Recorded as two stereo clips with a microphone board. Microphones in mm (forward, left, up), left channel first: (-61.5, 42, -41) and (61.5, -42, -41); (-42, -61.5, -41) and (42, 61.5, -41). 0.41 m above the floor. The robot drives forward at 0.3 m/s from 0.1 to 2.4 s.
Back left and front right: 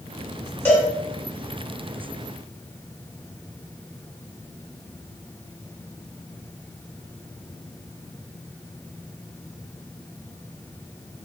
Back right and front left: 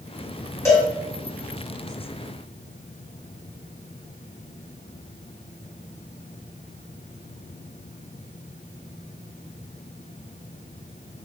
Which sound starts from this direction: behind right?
A cowbell, at 0.7 s.